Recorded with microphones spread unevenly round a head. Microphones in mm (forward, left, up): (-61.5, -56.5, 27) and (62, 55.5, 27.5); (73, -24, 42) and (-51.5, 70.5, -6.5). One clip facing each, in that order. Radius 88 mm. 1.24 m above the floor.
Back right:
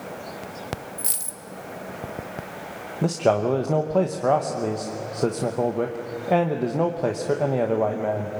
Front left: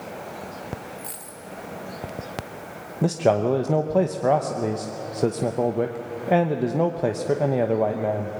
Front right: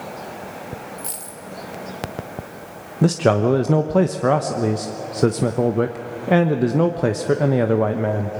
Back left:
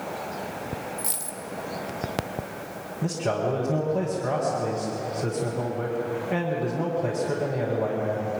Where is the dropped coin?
120° right, 1.2 m.